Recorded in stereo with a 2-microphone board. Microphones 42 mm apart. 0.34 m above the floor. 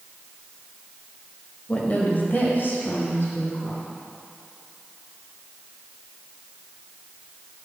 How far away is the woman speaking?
About 1.1 m.